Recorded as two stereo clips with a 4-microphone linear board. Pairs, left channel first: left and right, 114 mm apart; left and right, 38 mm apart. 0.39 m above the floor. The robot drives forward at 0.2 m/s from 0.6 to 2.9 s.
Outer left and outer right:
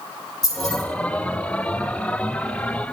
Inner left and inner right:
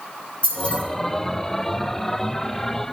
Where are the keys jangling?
35° left (ahead or behind), 5.5 m.